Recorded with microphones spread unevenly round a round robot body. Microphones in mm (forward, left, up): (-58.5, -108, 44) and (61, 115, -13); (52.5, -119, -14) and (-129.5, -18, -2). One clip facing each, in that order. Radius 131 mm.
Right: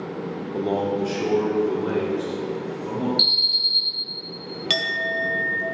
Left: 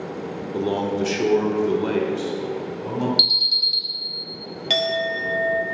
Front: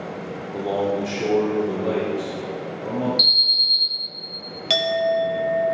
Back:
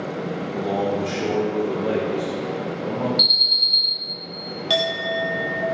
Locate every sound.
0.5 s a man speaking: 45° left, 0.6 m; by 3.1 s 70° left, 2.5 m
3.2 s an alarm: 65° left, 1.8 m
4.7 s a clink: 45° right, 0.5 m